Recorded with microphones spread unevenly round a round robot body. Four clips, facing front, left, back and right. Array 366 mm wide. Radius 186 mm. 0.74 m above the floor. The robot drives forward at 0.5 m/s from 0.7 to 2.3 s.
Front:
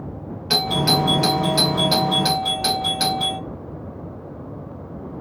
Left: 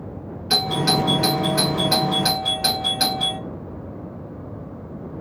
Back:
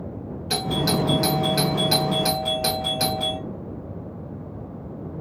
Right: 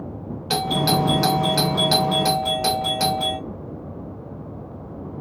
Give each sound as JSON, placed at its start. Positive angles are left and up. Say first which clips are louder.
{"t": 0.5, "sound": "a doorbell", "louder": "right 1 dB, front 3 dB", "azimuth_deg": -45, "distance_m": 1.1}